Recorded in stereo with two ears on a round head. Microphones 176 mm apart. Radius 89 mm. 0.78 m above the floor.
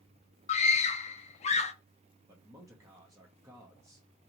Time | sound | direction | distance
0.5 | a scream | 35° left (ahead or behind) | 0.7 m
2.3 | a man speaking | 15° right (ahead or behind) | 0.6 m